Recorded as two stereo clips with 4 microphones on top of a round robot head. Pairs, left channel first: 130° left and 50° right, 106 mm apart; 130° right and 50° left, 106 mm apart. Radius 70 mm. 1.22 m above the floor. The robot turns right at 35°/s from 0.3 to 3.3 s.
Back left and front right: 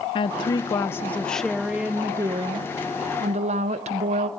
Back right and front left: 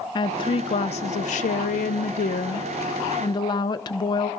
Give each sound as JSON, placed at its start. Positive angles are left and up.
{"t": 0.1, "sound": "a woman speaking", "azimuth_deg": 180, "distance_m": 0.5}